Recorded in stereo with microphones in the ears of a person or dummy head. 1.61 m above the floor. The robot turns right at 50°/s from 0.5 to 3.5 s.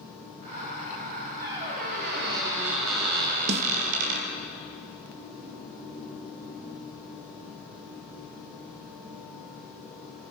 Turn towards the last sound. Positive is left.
turn(degrees=-40)  # may be behind; listen again after turning